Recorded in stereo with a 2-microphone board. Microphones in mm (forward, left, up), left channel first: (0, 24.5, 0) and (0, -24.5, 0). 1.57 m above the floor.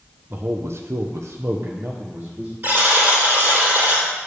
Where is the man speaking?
45° right (ahead or behind), 0.9 m; by 2.5 s 35° right (ahead or behind), 1.3 m.